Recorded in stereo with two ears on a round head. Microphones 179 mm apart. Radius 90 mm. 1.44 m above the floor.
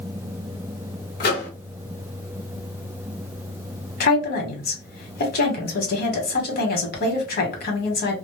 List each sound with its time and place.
1.2 s a microwave: 50° left (ahead or behind), 1.0 m
4.0 s a woman speaking: 55° left (ahead or behind), 1.1 m